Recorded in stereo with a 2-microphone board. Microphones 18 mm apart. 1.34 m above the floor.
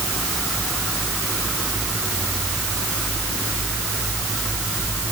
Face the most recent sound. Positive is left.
No sound to turn to.